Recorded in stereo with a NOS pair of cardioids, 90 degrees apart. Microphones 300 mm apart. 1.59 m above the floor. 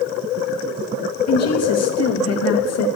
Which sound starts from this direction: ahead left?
A woman speaking, at 1.3 s.